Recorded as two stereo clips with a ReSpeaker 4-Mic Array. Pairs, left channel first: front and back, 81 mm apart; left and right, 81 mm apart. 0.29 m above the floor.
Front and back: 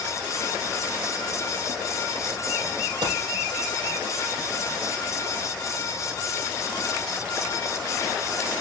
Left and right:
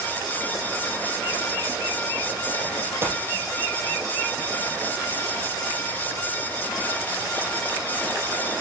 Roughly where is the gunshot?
Behind right.